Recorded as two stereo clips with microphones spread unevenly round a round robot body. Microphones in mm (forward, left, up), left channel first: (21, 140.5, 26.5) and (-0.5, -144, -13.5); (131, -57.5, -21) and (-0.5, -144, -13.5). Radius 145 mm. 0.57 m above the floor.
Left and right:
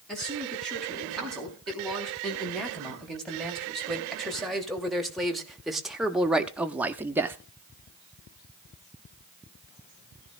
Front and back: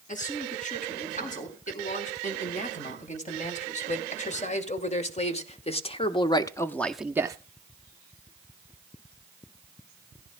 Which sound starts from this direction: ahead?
A man speaking, at 0.1 s.